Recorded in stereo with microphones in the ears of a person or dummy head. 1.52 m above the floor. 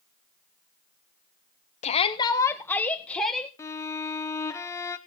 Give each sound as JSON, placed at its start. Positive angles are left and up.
{"t": 1.8, "sound": "a shout", "side_deg": 30, "distance_m": 0.9}
{"t": 3.6, "sound": "a violin", "side_deg": 10, "distance_m": 0.7}